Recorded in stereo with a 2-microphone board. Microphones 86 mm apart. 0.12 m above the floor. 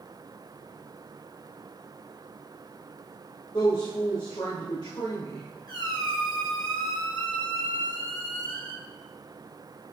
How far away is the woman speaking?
About 2.5 m.